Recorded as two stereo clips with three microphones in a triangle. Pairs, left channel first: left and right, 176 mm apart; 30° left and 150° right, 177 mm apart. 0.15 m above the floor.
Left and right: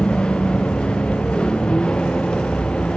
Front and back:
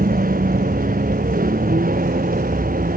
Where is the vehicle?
175° left.